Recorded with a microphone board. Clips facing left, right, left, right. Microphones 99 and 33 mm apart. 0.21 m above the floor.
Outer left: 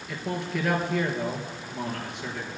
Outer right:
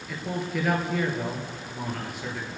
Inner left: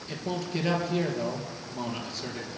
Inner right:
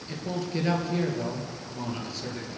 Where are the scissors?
I don't hear scissors.